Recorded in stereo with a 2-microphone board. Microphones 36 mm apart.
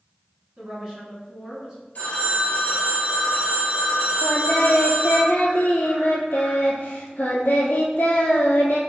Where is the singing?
70° left (ahead or behind), 1.1 m.